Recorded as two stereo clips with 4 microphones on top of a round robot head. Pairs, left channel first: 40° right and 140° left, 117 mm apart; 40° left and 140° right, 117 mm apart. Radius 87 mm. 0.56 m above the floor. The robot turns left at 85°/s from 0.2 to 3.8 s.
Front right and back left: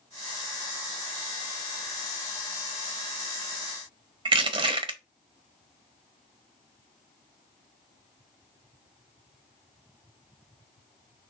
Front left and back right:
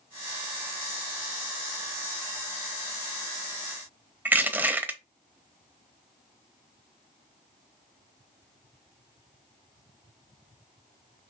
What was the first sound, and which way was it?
Crushing, 155° left.